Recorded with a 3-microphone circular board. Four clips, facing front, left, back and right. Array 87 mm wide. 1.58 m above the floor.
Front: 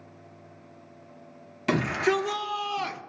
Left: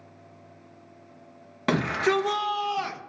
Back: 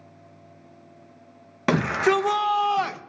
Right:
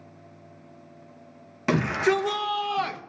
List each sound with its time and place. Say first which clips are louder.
1.7 s a shout: right 1 dB, back 4 dB; 160° left, 1.4 m; by 3.0 s 165° right, 1.2 m